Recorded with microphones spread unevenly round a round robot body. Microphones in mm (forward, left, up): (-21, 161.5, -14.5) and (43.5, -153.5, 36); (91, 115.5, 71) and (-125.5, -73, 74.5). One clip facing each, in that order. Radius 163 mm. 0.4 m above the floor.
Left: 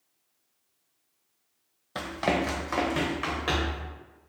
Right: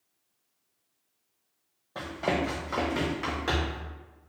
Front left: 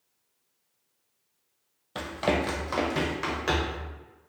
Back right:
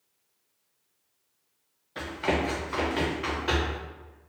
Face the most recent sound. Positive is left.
turn(degrees=0)